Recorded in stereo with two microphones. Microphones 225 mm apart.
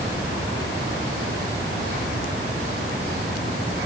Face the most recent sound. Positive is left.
No sound to turn to.